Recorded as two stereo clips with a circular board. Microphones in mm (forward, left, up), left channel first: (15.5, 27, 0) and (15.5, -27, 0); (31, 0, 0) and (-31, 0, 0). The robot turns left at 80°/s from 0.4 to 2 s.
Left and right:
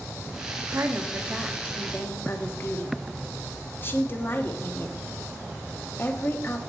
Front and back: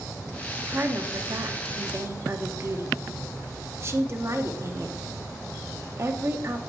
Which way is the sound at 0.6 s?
110° right.